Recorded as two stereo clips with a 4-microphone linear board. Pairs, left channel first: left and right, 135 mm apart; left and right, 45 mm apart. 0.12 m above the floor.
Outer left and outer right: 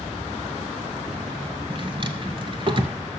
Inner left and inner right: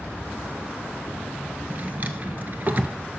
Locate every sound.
1.7 s a drawer: 40° right (ahead or behind), 0.7 m